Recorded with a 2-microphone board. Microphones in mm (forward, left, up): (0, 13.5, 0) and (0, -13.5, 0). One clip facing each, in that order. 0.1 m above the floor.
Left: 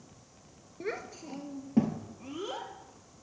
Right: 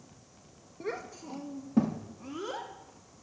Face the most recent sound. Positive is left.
turn(degrees=10)  # may be behind; listen again after turning